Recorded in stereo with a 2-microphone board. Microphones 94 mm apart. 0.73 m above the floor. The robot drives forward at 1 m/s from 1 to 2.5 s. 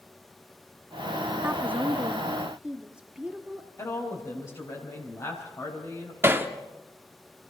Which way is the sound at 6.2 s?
25° right (ahead or behind).